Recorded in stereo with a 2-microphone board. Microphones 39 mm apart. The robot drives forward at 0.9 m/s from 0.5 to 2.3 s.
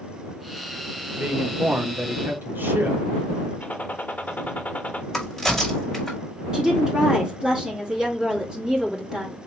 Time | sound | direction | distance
1.2 | a man speaking | 50° right (ahead or behind) | 1.1 m
3.6 | a gunshot | 45° left (ahead or behind) | 0.6 m
5.1 | a crack | 5° left (ahead or behind) | 2.5 m
6.5 | a woman speaking | 20° right (ahead or behind) | 2 m